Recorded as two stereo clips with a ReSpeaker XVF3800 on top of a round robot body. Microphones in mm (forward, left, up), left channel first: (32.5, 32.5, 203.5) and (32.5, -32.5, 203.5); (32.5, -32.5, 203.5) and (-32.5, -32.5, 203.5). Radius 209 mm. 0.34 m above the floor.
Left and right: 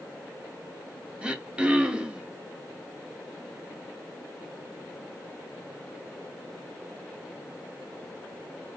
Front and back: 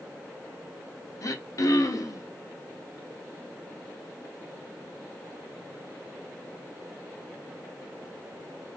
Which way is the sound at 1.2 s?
15° right.